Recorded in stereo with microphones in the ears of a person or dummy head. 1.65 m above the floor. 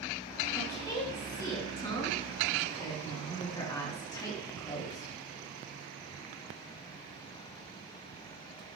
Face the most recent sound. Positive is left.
turn(degrees=20)  # may be behind; listen again after turning